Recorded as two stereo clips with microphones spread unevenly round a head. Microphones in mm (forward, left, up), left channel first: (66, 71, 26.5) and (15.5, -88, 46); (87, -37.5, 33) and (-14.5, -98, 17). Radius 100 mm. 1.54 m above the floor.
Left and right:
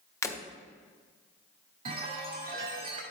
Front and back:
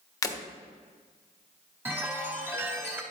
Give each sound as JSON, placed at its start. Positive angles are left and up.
{"t": 0.2, "sound": "breaking glass", "azimuth_deg": 0, "distance_m": 1.3}
{"t": 1.9, "sound": "a chime", "azimuth_deg": -80, "distance_m": 2.5}